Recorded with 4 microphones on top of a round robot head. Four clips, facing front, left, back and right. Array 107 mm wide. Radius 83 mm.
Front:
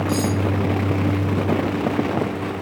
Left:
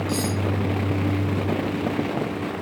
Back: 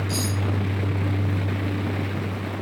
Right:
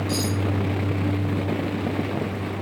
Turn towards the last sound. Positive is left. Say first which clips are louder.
# even, front 8 dB
turn(degrees=-25)